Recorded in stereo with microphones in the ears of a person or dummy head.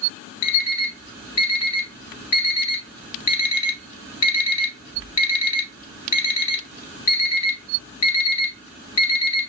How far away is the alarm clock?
About 3 m.